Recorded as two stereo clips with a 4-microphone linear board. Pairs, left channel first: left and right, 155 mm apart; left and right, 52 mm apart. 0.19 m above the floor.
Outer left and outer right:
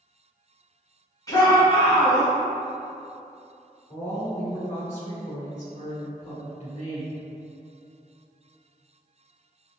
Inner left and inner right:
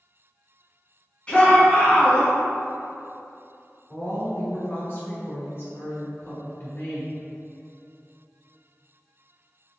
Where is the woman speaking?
50° left (ahead or behind), 1.6 m.